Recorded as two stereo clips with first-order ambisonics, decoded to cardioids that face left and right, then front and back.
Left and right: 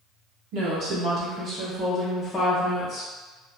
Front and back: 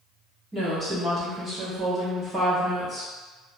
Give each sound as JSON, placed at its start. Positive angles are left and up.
{"t": 0.5, "sound": "a woman speaking", "azimuth_deg": -110, "distance_m": 1.1}